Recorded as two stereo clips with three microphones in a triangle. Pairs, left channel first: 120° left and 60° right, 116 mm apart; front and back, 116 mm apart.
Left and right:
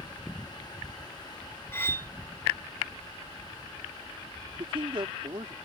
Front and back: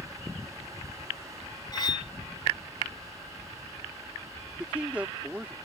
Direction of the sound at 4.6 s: 100° right.